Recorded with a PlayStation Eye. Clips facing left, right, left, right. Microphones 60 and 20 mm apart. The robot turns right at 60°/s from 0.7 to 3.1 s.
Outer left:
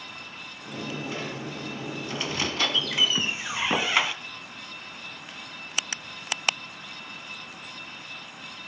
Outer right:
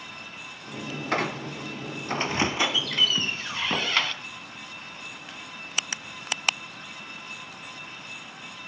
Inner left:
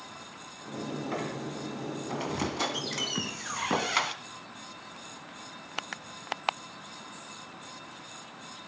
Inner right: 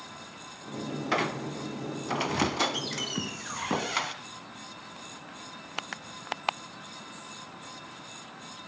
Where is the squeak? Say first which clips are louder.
Outer right 6 dB, inner right 5 dB; 105° right, 1.3 m; by 4.1 s 15° left, 1.3 m.